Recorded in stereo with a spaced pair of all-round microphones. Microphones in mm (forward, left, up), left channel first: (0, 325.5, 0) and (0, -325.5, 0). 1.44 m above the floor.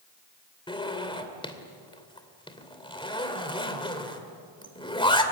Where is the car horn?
I don't hear a car horn.